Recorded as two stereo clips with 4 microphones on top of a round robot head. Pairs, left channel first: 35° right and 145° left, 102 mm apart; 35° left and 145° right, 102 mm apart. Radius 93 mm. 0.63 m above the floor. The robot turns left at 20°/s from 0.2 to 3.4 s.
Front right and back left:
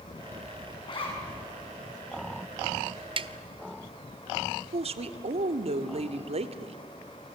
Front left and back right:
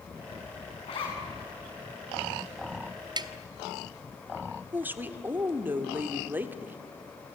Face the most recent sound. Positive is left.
turn(degrees=145)